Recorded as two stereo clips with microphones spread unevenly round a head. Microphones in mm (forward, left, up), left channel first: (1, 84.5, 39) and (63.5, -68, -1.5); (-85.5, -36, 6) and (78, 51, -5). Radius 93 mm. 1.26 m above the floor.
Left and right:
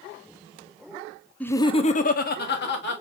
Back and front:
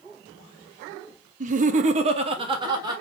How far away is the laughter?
About 0.5 m.